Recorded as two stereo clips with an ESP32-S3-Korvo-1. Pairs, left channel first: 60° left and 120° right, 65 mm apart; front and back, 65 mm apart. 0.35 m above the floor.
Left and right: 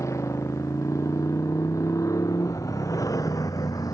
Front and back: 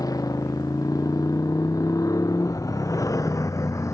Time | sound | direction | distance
0.0 | a motorcycle | 20° left | ?